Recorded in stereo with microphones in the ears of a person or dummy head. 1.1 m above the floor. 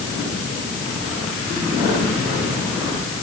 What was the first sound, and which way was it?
Only background noise.